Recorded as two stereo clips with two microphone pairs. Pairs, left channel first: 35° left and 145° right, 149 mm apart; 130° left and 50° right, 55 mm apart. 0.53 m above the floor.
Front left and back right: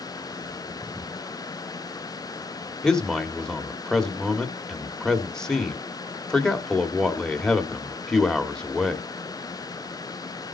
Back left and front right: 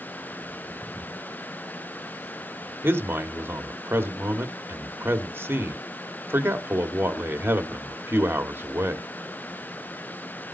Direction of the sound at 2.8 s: 45° right.